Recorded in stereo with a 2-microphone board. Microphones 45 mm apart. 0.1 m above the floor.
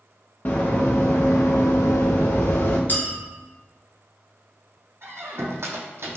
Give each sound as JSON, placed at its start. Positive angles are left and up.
{"t": 0.5, "sound": "running footsteps", "side_deg": 45, "distance_m": 1.1}
{"t": 2.9, "sound": "a clink", "side_deg": 45, "distance_m": 0.9}
{"t": 5.0, "sound": "a squeak", "side_deg": -70, "distance_m": 0.7}